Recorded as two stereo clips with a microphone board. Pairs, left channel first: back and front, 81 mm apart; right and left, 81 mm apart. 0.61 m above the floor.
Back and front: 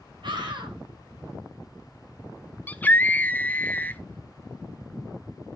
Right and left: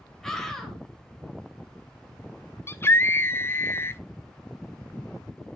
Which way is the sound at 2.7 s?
125° right.